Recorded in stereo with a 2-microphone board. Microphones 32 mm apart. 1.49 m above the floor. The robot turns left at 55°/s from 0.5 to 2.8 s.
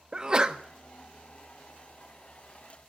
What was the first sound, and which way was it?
A sneeze, 25° right (ahead or behind).